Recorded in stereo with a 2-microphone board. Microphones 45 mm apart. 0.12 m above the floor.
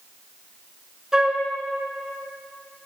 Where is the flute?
15° right (ahead or behind), 1.0 m.